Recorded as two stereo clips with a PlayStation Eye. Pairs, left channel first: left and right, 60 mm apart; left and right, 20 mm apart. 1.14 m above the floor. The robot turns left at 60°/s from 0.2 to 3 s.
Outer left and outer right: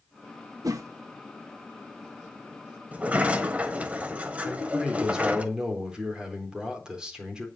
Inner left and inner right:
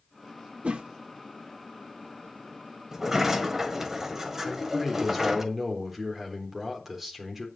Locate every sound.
0.6 s a whoosh: 75° right (ahead or behind), 1.1 m; by 0.9 s 60° right (ahead or behind), 1.1 m
2.9 s a sliding door: 25° right (ahead or behind), 1.5 m; by 5.5 s 20° right (ahead or behind), 1.5 m
4.5 s a man speaking: 15° right (ahead or behind), 4 m